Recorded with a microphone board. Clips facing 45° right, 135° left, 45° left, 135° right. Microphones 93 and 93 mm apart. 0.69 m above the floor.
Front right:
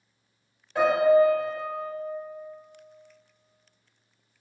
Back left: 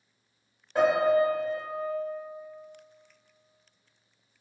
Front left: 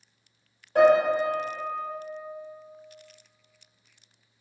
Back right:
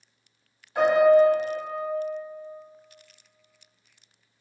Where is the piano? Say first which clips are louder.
Front right 3 dB, back right 2 dB; 65° left, 1.6 m.